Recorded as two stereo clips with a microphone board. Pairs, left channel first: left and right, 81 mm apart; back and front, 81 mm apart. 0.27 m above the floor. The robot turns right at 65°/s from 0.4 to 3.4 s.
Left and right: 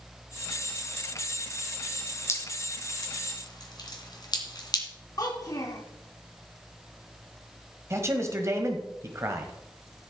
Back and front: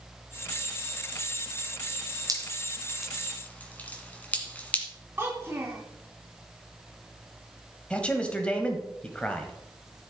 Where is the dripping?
40° left, 2 m; by 4.9 s 110° left, 2 m.